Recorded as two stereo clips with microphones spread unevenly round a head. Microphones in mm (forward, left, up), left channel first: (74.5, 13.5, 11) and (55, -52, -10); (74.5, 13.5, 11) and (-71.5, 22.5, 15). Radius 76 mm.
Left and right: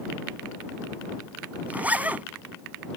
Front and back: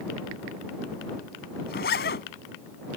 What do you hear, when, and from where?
1.7 s a zipper: 35° right